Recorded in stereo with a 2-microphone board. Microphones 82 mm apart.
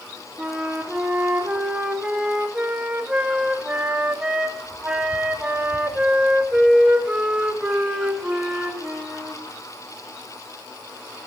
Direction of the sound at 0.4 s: 10° right (ahead or behind).